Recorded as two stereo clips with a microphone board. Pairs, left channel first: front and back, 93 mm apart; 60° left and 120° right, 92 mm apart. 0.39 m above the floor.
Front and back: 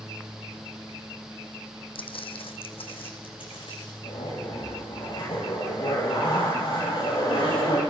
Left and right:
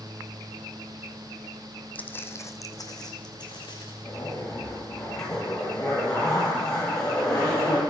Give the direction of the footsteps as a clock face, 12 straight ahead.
12 o'clock.